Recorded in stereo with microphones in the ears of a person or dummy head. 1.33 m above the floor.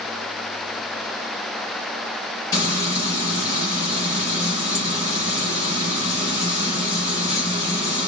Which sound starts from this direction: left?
Frying, at 2.5 s.